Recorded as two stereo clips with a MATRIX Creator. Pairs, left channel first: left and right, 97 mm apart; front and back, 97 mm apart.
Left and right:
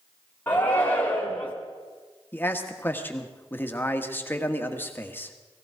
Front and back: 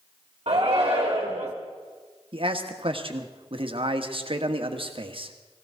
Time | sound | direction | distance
0.5 | a shout | 155° left | 1.8 m
2.3 | a man speaking | 160° left | 1.4 m